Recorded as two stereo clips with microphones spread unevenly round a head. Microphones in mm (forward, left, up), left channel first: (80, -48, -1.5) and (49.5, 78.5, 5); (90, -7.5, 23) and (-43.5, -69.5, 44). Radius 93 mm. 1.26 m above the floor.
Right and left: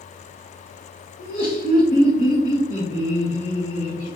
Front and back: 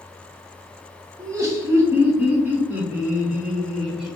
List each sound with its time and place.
1.2 s laughter: 85° right, 2 m; by 4.2 s 65° right, 3 m